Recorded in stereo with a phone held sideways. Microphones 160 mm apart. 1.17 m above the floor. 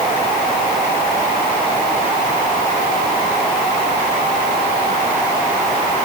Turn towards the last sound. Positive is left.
No sound to turn to.